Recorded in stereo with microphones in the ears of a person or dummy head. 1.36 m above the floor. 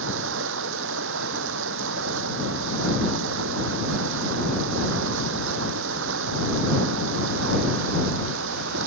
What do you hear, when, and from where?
0.0 s running water: 75° right (ahead or behind)